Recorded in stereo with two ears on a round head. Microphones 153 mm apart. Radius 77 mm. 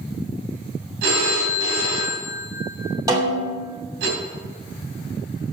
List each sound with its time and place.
1.0 s a phone ringing: 70° right (ahead or behind), 3.5 m
3.1 s a snare drum: 20° right (ahead or behind), 2.5 m